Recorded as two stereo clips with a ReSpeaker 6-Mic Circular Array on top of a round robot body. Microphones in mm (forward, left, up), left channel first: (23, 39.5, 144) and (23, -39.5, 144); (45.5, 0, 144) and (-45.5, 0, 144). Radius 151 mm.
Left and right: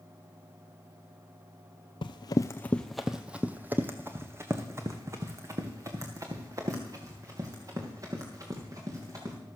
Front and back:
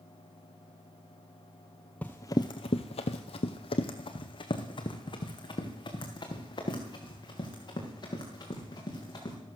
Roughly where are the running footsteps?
Left.